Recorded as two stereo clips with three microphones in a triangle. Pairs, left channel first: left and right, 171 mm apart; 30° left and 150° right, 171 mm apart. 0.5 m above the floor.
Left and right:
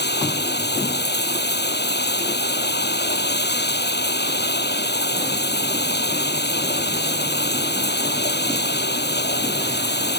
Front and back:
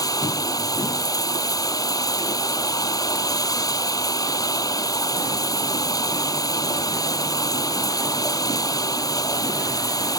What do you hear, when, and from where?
0.0 s running water: 100° left